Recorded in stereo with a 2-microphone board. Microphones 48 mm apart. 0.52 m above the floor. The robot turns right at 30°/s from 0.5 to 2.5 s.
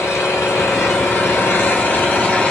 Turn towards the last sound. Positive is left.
turn(degrees=150)